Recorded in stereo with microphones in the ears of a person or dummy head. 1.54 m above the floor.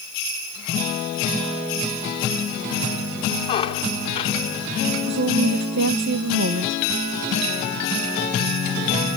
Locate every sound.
3.5 s a squeak: 30° left (ahead or behind), 2 m
5.1 s a woman speaking: 60° right (ahead or behind), 1.5 m